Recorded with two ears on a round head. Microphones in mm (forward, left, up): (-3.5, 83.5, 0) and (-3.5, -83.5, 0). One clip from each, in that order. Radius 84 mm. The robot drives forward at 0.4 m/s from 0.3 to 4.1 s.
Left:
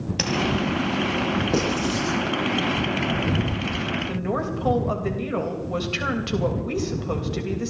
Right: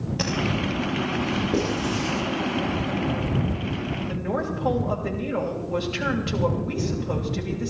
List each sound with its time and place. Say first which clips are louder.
0.2 s tapping: left 3 dB; 40° left (ahead or behind), 3.5 m
1.5 s writing: left 2 dB; 85° left, 9 m; by 2.2 s 90° left, 9 m
4.1 s a woman speaking: left 1 dB; 30° left (ahead or behind), 3 m